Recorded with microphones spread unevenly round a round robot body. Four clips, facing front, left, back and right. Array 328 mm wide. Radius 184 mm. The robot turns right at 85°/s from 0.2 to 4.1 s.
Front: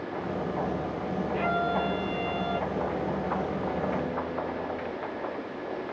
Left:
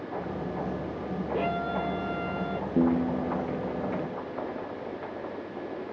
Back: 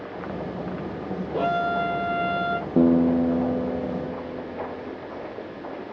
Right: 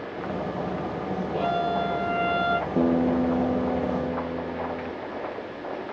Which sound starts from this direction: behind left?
A violin, at 1.3 s.